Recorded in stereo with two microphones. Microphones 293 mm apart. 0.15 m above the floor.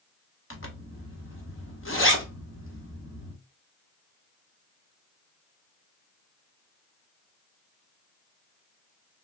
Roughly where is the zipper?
Left.